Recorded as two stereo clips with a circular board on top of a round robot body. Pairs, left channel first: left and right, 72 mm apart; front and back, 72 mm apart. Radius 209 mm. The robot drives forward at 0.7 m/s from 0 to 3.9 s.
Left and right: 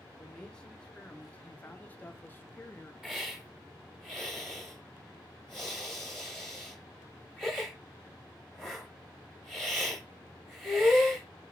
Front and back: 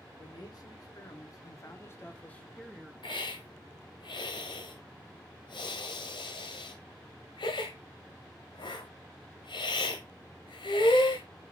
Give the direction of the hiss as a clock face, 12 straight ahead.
12 o'clock.